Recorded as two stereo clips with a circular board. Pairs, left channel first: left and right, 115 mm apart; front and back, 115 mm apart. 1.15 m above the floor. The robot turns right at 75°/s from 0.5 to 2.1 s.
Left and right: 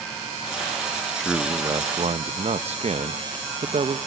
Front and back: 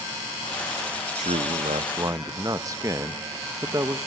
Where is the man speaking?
175° left, 0.9 m; by 4.0 s 115° right, 0.9 m.